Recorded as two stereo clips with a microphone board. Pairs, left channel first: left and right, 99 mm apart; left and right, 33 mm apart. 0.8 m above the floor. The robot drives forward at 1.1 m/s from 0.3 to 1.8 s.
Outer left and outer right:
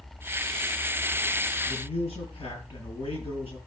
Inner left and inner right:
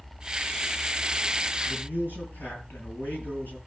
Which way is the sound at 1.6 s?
80° left.